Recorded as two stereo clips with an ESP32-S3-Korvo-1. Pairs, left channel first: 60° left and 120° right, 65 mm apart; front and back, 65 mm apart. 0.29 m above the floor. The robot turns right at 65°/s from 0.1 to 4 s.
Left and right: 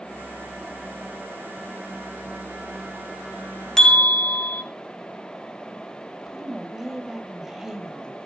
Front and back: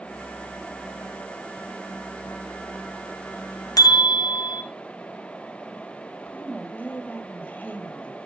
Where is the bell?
20° right, 1.1 m; by 4.6 s 5° right, 1.1 m.